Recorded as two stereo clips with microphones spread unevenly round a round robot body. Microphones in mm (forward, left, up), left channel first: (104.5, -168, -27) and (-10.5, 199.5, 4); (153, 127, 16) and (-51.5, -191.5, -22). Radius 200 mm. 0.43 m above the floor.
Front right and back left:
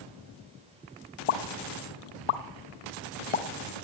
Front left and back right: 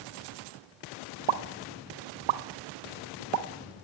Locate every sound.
1.3 s a pop: 105° right, 0.9 m